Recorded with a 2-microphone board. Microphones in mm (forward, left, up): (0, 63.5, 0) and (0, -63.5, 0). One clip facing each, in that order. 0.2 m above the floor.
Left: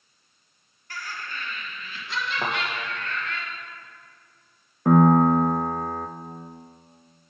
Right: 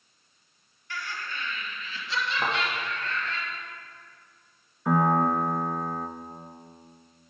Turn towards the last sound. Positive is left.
turn(degrees=60)  # may be behind; listen again after turning